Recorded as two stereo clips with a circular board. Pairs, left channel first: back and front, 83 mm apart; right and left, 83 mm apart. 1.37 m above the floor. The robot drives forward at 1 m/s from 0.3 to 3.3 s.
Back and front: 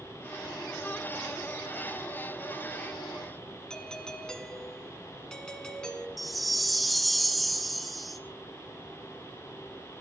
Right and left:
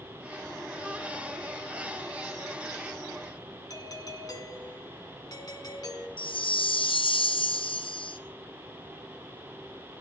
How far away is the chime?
About 0.6 m.